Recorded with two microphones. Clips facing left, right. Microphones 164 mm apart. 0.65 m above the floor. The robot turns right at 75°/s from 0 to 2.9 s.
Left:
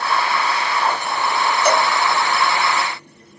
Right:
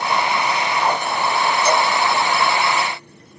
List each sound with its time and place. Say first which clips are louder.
1.6 s a cowbell: left 2 dB; 60° left (ahead or behind), 3.5 m; by 1.9 s 40° left (ahead or behind), 3.5 m